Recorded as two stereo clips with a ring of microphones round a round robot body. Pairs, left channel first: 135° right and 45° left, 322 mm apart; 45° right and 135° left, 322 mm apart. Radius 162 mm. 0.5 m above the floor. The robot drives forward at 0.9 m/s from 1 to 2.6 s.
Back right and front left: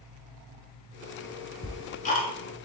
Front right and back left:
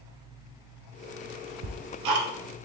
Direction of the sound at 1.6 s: 140° left.